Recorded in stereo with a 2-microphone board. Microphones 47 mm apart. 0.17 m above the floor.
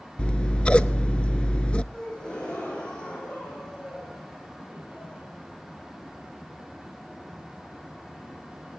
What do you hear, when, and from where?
0.2 s scissors: 25° left (ahead or behind), 0.6 m
1.9 s a gasp: 20° left (ahead or behind), 7.5 m